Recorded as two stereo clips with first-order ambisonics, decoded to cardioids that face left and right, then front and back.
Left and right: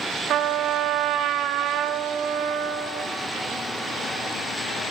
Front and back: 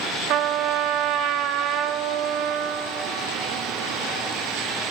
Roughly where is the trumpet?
Behind right.